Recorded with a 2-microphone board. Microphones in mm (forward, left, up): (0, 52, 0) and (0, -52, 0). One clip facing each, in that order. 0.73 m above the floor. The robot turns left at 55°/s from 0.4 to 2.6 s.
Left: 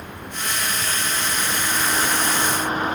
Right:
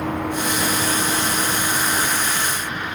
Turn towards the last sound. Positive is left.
turn(degrees=145)